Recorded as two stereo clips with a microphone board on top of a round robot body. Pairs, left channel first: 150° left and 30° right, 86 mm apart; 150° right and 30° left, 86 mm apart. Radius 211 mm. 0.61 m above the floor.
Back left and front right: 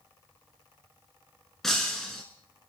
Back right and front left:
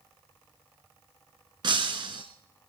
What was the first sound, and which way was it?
Breaking glass, 65° left.